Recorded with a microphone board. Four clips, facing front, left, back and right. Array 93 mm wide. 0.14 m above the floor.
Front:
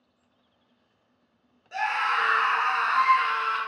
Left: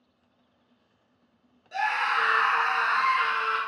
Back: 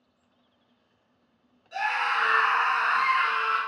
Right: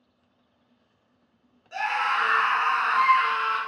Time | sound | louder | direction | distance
1.7 | a scream | right 1 dB, front 1 dB | 50° right | 1.2 m